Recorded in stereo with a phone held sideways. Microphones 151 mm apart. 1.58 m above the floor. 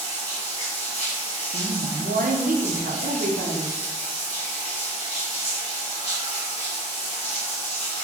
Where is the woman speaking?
70° right (ahead or behind), 0.6 m.